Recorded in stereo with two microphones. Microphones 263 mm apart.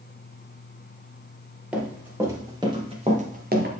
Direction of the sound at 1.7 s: 5° right (ahead or behind).